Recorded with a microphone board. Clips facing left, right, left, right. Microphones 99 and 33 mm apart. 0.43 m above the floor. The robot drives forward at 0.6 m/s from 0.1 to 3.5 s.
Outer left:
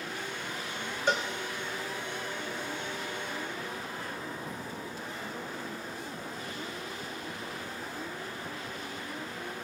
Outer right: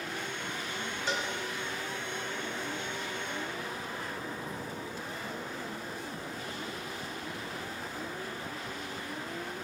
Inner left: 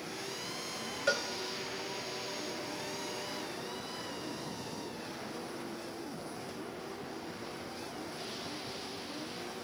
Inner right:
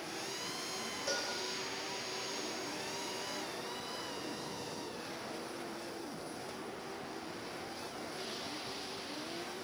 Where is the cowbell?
55° left (ahead or behind), 1.0 m; by 1.3 s 60° left (ahead or behind), 0.9 m.